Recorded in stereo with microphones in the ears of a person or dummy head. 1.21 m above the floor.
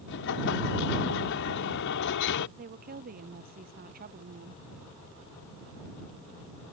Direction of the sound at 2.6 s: 45° right (ahead or behind).